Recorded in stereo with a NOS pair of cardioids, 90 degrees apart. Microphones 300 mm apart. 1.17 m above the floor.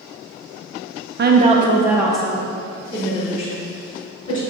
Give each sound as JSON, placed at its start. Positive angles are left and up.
{"t": 1.2, "sound": "a woman speaking", "azimuth_deg": -35, "distance_m": 0.6}